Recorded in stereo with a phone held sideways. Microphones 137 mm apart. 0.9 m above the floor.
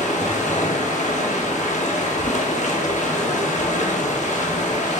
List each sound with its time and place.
0.0 s running water: 60° left (ahead or behind), 1.0 m